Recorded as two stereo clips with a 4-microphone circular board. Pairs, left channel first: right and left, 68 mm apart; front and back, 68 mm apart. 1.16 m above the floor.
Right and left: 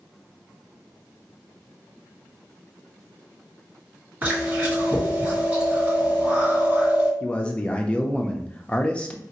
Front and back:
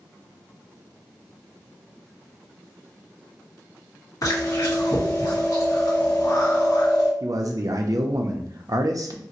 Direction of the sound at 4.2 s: 30° left.